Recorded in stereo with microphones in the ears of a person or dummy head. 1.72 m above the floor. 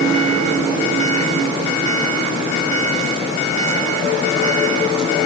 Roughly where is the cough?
I don't hear a cough.